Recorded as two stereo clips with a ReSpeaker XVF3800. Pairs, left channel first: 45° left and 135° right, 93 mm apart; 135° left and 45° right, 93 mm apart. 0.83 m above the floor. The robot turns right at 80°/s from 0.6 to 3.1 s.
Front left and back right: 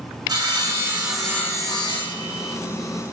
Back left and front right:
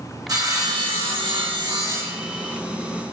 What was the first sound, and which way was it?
Sawing, 95° right.